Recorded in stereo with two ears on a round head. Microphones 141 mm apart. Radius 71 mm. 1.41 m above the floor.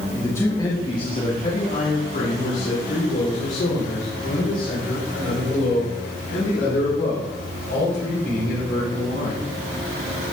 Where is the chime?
No chime in this recording.